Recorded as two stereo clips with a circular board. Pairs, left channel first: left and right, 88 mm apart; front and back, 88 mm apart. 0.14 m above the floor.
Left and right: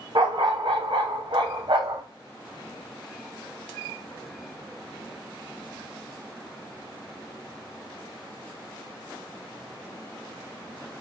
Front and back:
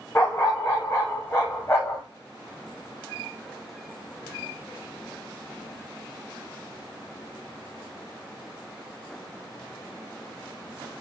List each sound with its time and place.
0.1 s a dog barking: 60° right, 3 m